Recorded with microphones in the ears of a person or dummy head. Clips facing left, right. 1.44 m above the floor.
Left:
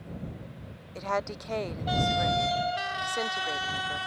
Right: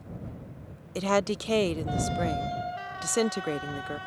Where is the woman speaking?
45° right (ahead or behind).